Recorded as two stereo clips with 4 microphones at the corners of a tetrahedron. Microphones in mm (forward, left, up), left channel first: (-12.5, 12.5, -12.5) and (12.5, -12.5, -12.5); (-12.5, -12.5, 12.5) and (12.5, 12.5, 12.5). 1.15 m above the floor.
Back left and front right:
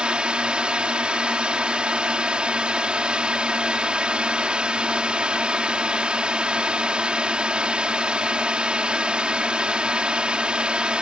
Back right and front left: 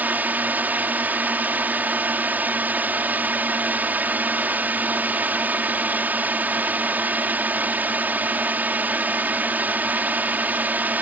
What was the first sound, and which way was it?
A drone, 10° left.